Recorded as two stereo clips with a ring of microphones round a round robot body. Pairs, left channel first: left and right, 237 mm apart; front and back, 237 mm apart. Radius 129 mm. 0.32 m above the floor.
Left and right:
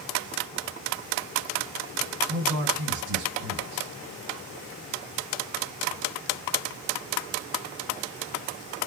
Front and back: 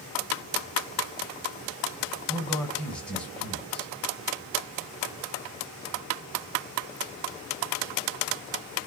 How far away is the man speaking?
About 1.7 m.